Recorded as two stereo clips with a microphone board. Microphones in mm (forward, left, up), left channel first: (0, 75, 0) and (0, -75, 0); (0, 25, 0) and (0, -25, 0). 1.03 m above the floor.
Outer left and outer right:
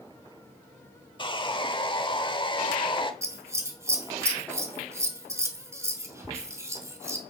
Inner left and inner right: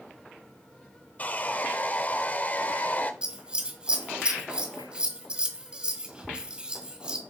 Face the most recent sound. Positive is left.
turn(degrees=-20)  # may be behind; listen again after turning